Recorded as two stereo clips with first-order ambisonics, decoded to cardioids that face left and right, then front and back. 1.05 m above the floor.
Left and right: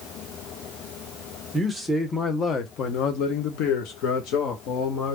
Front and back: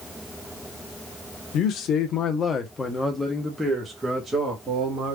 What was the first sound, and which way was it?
A man speaking, 10° right.